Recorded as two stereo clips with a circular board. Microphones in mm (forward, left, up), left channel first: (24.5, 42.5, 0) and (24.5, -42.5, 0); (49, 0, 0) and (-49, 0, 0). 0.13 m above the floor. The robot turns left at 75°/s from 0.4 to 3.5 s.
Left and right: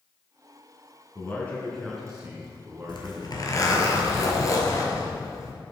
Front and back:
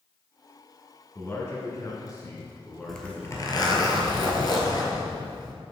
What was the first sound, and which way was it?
A man speaking, 55° left.